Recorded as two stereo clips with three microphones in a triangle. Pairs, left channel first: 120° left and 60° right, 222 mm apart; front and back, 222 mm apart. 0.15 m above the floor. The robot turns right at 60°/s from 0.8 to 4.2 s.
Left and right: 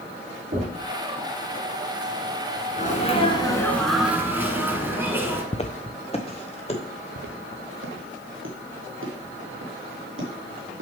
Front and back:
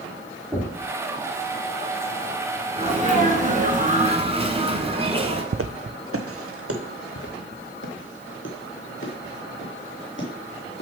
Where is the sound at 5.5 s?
Straight behind, 0.5 m; by 6.8 s 175° right, 2.5 m.